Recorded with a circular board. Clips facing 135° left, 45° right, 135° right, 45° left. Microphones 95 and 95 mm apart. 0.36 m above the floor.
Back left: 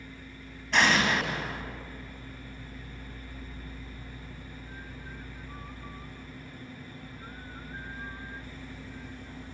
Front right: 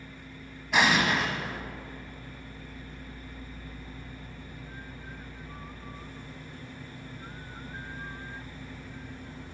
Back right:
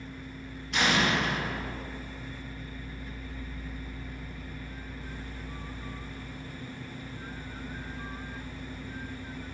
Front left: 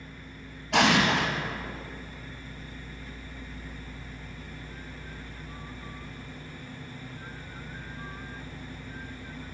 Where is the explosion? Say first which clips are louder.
Even, front left 4 dB; 35° left, 0.7 m.